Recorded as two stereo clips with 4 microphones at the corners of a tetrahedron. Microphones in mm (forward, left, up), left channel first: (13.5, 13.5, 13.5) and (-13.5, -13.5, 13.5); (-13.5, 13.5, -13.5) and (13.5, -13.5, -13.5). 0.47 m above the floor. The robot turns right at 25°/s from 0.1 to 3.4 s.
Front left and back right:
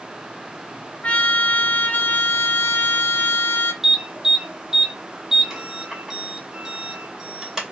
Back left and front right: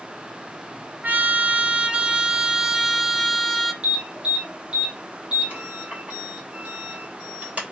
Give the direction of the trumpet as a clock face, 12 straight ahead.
12 o'clock.